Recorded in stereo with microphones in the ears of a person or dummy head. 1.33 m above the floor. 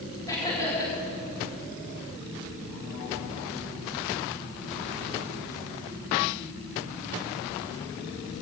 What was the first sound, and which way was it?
Laughter, 20° left (ahead or behind).